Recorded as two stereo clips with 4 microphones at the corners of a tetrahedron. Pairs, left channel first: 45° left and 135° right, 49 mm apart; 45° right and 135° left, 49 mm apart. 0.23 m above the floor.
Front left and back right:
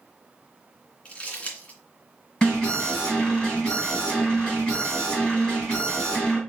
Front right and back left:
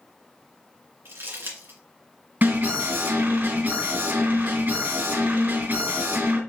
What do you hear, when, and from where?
1.1 s crumpling: 110° left, 2.5 m
2.4 s an alarm: 115° left, 3 m